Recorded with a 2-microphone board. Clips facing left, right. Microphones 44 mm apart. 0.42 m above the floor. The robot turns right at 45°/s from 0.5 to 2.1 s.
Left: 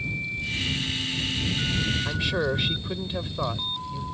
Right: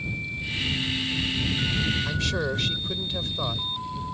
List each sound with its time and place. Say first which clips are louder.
2.0 s a man speaking: left 1 dB; 10° left (ahead or behind)